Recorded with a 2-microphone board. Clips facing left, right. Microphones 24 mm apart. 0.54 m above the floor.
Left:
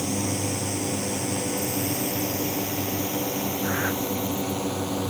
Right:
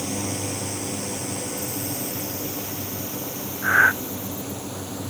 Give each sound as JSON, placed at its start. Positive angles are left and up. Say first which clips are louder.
{"t": 0.0, "sound": "a drone", "louder": "left 1 dB", "side_deg": 0}
{"t": 3.6, "sound": "breathing", "louder": "right 12 dB", "side_deg": -80}